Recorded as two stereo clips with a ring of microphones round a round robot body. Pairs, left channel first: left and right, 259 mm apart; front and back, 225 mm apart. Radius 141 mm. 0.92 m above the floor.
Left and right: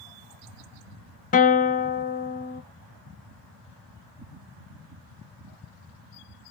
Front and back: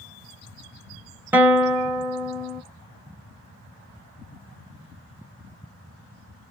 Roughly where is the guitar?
Left.